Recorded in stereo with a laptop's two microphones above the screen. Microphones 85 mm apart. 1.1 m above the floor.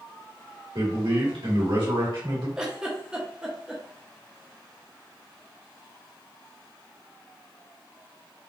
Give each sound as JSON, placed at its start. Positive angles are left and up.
{"t": 0.8, "sound": "a man speaking", "side_deg": -75, "distance_m": 1.8}
{"t": 2.6, "sound": "a giggle", "side_deg": -10, "distance_m": 0.7}